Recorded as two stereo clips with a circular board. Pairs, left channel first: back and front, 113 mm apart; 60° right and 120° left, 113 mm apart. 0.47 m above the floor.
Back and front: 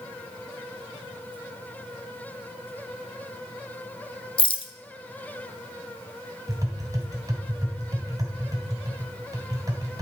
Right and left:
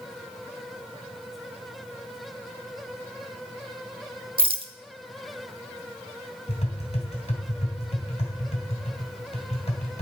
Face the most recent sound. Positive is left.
turn(degrees=-55)